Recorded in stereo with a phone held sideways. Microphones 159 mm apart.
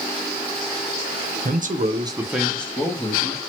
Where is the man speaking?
65° right (ahead or behind), 0.6 m; by 3.4 s 30° left (ahead or behind), 1.1 m.